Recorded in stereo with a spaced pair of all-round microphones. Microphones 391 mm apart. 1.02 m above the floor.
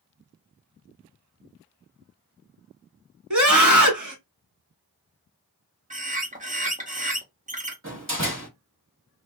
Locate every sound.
3.3 s a scream: 50° right (ahead or behind), 1.2 m
5.9 s a bird: 20° right (ahead or behind), 1.0 m
7.8 s a door slam: 30° right (ahead or behind), 1.4 m